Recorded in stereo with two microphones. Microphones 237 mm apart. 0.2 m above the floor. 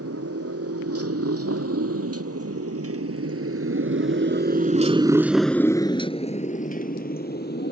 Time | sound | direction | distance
0.0 | a motorcycle | 75° right (ahead or behind) | ?